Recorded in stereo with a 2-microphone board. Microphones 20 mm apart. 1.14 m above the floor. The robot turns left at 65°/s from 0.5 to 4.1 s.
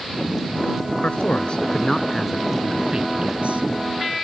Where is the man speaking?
80° left; by 3.6 s 90° right.